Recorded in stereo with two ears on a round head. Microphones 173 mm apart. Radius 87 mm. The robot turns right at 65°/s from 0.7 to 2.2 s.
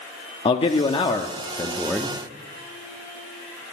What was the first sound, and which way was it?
A man speaking, 30° left (ahead or behind).